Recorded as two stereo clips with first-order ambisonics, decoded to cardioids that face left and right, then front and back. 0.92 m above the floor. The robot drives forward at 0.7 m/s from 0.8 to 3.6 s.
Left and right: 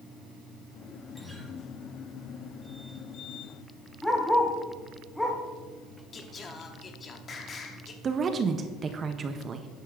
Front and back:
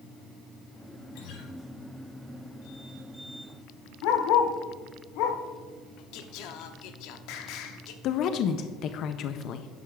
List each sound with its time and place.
1.1 s a guitar: straight ahead, 1.6 m
4.0 s a dog barking: 5° left, 1.2 m
6.1 s singing: 25° left, 0.8 m
8.0 s a woman speaking: 30° right, 0.5 m